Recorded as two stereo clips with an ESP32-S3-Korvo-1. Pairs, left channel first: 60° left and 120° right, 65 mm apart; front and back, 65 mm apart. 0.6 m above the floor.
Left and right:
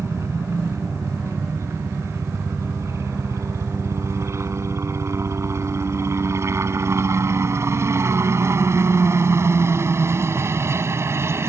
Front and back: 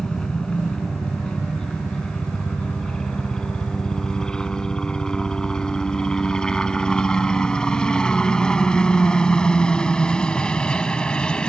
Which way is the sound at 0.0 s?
80° right.